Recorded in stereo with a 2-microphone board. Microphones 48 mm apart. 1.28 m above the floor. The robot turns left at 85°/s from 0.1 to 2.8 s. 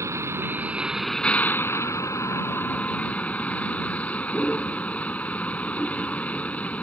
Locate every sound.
0.0 s a vehicle: 100° right; by 6.8 s 30° left